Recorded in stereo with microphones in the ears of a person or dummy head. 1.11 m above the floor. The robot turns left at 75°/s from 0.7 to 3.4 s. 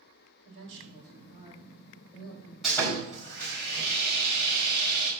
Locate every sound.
0.5 s a woman speaking: 90° right, 4.5 m; by 2.5 s 130° left, 4.5 m
2.6 s sawing: 175° right, 3 m; by 5.1 s 125° left, 3 m